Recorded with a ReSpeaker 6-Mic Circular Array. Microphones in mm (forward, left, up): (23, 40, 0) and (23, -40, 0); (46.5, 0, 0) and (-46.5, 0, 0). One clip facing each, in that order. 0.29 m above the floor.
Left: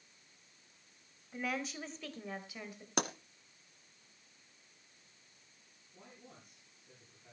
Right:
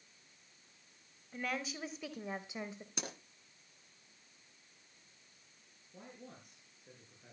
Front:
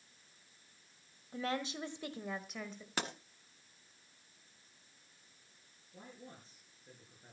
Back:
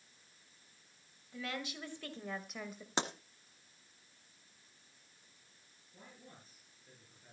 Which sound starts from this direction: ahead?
A woman speaking, at 1.3 s.